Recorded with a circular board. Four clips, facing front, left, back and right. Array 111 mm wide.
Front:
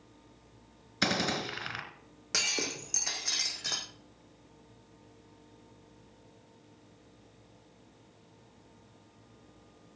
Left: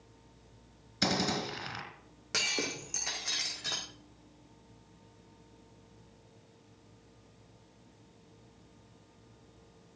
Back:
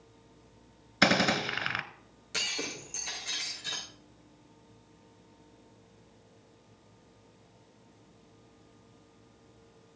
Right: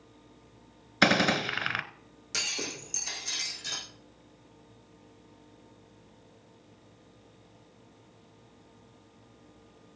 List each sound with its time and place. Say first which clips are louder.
1.0 s a gunshot: right 7 dB, back 5 dB; 120° right, 1.1 m
2.3 s breaking glass: left 2 dB, front 2 dB; 40° left, 4.5 m